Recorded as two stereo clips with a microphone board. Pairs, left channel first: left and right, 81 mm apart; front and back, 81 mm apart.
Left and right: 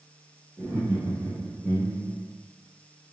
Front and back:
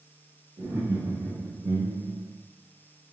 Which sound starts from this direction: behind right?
Laughter, at 0.6 s.